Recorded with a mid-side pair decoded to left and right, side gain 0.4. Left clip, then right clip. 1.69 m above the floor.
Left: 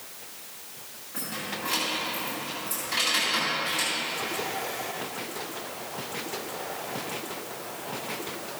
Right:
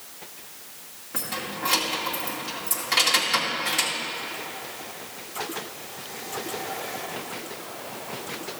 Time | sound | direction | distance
1.1 | keys jangling | 70° right | 2 m